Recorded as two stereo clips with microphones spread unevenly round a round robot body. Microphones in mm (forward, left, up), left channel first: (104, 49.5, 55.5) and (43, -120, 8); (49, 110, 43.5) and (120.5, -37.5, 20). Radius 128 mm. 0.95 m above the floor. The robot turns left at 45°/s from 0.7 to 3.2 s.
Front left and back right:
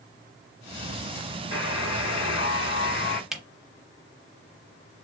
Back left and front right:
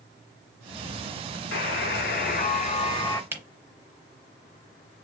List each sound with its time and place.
1.5 s a buzzer: 120° left, 0.7 m; by 3.2 s 45° left, 0.7 m
3.3 s a camera shutter: 10° left, 0.8 m